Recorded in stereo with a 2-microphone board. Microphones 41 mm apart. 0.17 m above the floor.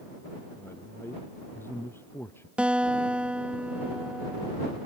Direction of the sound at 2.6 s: 25° right (ahead or behind).